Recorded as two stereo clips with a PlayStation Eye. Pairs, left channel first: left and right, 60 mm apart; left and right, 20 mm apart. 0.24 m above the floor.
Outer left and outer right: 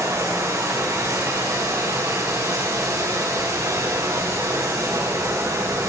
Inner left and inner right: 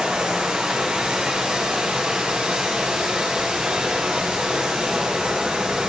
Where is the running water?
60° right (ahead or behind), 4.5 m.